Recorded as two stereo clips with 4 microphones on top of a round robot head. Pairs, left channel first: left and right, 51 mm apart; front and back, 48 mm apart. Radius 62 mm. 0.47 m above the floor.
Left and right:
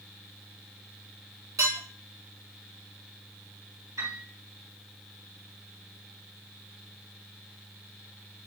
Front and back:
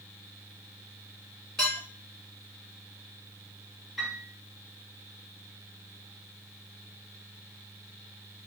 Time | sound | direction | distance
1.6 | dishes clattering | 75° right | 5 m
4.0 | a piano | 90° right | 4.5 m